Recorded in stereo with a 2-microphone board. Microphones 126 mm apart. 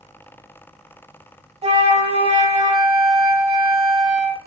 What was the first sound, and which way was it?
A flute, 50° right (ahead or behind).